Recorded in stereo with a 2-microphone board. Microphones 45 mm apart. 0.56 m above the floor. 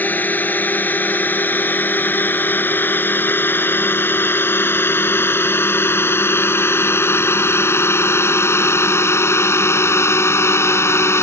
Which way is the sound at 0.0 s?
45° left (ahead or behind).